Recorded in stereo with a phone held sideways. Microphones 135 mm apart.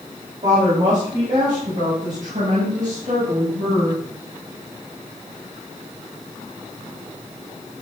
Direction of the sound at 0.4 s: 60° right (ahead or behind).